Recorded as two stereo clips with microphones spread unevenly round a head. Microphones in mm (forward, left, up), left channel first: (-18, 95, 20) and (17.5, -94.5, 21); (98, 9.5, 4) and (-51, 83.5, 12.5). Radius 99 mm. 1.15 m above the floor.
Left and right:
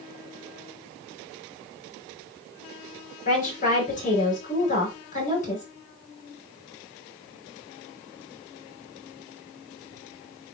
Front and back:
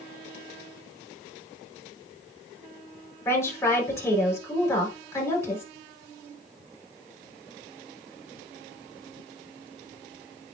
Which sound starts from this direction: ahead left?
A woman speaking, at 3.2 s.